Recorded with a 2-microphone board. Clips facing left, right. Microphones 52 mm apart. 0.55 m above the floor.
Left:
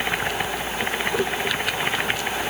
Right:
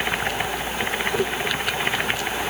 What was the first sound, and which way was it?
Only background noise.